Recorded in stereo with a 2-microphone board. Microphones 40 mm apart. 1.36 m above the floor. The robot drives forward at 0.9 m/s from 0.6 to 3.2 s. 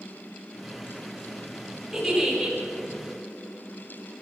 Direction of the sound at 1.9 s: 5° right (ahead or behind).